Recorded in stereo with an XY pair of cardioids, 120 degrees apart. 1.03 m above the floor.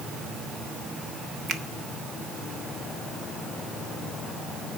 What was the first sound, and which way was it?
A finger snap, 45° right.